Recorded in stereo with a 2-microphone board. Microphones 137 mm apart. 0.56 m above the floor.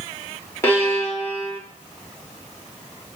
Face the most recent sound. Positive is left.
turn(degrees=15)  # may be behind; listen again after turning